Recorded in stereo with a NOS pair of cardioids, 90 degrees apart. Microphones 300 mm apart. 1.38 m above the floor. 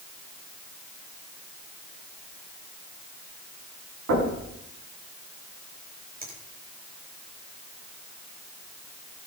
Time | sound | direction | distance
4.1 | knocking | 60° right | 8 m
6.2 | a finger snap | 30° right | 6 m